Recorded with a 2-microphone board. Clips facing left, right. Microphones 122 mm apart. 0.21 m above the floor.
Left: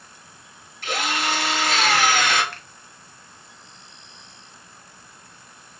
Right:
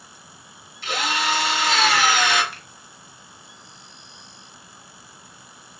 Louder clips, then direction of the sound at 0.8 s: Right 1 dB; 45° left (ahead or behind).